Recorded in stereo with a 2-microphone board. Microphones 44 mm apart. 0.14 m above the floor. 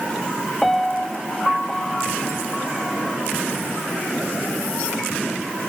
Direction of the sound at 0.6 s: 5° left (ahead or behind).